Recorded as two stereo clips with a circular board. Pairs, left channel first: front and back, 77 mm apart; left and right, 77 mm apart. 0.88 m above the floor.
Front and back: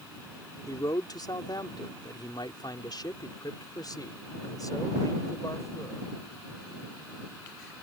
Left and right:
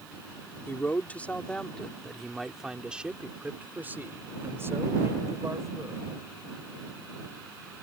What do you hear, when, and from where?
0.7 s a man speaking: 30° left; by 6.1 s 45° right